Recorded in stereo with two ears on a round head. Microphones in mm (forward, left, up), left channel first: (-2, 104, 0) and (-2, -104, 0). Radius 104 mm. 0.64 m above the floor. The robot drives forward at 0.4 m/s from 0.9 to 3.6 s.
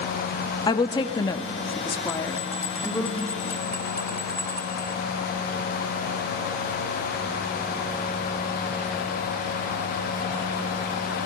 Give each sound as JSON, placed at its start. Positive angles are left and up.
{"t": 0.7, "sound": "a woman speaking", "side_deg": 20, "distance_m": 0.6}
{"t": 2.1, "sound": "a bell", "side_deg": 15, "distance_m": 0.9}